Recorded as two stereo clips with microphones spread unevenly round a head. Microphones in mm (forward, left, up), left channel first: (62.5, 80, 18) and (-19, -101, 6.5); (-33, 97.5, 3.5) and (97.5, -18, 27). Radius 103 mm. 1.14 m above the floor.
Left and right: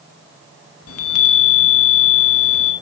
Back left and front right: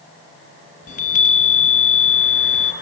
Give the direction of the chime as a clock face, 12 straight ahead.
9 o'clock.